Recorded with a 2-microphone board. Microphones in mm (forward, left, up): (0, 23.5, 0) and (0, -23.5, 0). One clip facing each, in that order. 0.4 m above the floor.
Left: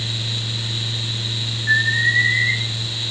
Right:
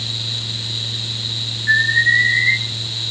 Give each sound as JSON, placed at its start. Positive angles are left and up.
{"t": 1.7, "sound": "an alarm", "side_deg": -10, "distance_m": 7.0}